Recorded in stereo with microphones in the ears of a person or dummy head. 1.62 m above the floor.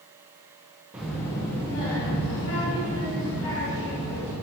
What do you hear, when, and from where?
0.9 s a child speaking: 10° right (ahead or behind), 0.6 m; by 4.3 s 75° left (ahead or behind), 2.5 m